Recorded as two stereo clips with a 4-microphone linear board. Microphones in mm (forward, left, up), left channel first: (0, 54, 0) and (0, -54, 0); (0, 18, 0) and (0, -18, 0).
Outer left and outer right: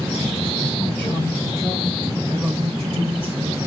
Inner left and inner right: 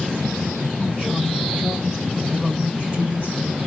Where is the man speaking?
15° left (ahead or behind), 1.8 m; by 3.4 s 45° right (ahead or behind), 2.0 m.